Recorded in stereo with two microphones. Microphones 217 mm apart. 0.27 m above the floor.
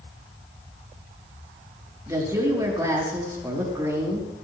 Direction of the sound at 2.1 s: 15° right (ahead or behind).